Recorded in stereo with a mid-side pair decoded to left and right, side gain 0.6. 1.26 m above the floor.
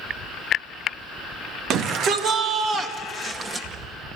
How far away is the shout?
About 2 m.